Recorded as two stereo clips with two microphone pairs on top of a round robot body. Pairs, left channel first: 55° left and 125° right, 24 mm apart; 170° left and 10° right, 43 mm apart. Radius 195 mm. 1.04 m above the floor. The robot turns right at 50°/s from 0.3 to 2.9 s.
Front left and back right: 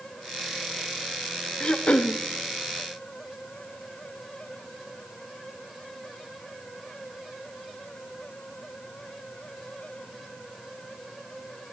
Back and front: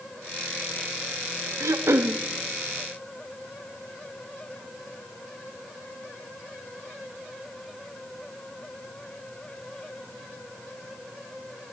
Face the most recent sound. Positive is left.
turn(degrees=65)